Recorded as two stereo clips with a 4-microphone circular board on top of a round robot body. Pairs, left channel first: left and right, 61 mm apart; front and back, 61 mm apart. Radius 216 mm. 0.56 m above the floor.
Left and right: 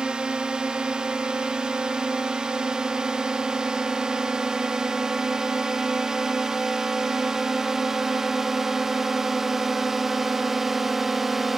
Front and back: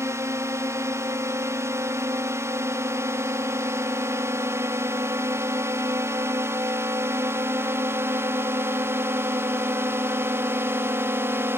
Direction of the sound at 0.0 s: 165° right.